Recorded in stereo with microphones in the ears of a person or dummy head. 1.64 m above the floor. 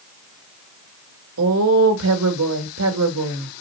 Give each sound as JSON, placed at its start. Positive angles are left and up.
{"t": 1.4, "sound": "a woman speaking", "side_deg": -80, "distance_m": 2.5}